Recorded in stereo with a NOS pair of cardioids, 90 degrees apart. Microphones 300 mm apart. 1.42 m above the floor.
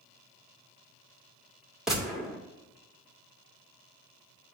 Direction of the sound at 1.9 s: Straight ahead.